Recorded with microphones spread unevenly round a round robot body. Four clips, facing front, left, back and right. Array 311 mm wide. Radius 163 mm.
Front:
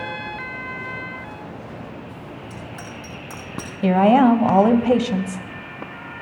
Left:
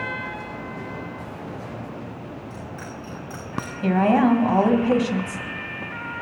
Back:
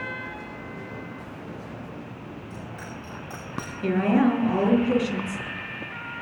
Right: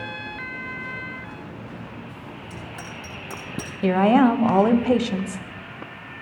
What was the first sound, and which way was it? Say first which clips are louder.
A bicycle bell: left 2 dB, front 3 dB; 85° right.